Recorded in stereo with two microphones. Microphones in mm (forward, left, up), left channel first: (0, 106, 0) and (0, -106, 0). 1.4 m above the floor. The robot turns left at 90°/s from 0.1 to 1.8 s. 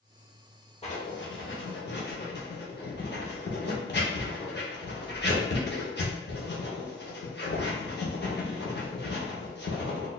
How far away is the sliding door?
No sliding door in this recording.